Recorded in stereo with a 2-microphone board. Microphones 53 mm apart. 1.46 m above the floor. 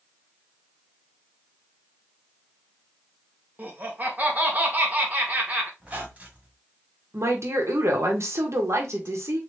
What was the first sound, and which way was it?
Laughter, 35° right (ahead or behind).